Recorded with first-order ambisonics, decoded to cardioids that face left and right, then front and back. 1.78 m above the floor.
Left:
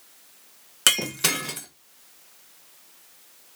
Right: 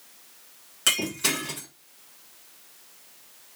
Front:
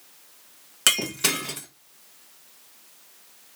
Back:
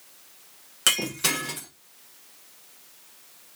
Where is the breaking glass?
65° left, 1.0 m.